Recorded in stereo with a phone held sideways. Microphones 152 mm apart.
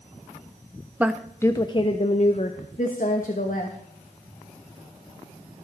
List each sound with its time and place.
1.0 s a woman speaking: 10° right (ahead or behind), 0.5 m; by 3.8 s 65° left (ahead or behind), 1.8 m